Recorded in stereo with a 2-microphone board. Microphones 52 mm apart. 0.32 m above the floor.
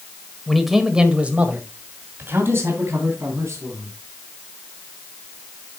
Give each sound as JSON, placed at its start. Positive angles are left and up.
{"t": 0.5, "sound": "a man speaking", "side_deg": 5, "distance_m": 1.6}